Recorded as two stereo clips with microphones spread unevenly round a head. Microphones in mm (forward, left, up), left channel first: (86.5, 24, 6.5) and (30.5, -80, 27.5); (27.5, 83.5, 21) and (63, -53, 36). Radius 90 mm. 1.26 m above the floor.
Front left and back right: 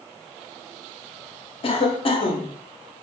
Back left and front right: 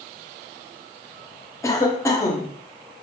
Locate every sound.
1.6 s a cough: 40° left, 1.0 m